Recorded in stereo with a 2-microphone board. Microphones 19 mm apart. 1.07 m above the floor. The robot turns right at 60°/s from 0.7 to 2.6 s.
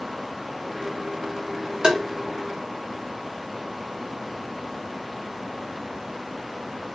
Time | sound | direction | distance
1.8 | tapping | 40° right (ahead or behind) | 0.6 m